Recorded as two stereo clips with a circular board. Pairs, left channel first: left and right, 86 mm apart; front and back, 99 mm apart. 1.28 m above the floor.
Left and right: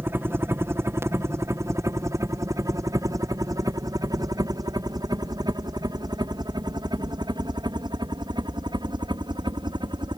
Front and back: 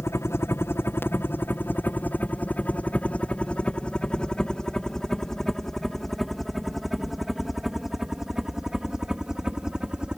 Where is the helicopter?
45° right; by 10.2 s 100° right.